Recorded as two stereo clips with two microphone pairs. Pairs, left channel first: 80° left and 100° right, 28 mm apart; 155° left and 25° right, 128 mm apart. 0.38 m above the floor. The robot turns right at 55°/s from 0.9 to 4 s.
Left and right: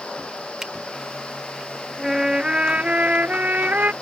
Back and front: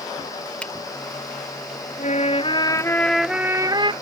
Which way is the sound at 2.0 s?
175° left.